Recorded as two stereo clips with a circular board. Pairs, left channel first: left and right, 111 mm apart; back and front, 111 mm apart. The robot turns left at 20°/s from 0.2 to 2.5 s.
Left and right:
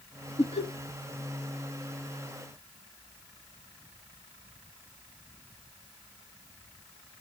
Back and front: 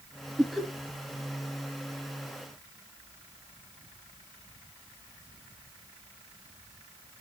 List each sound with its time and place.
0.4 s laughter: 90° left, 3 m; by 0.7 s 85° left, 3 m